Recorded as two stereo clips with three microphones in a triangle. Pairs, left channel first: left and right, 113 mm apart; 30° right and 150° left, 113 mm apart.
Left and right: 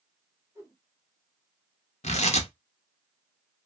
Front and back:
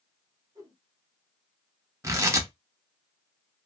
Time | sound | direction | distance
0.6 | a whoosh | 155° right | 1.6 m
2.0 | tearing paper | 90° left | 0.7 m